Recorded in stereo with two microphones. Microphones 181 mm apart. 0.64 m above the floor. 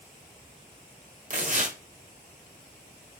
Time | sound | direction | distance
1.3 | tearing paper | 45° right (ahead or behind) | 1.1 m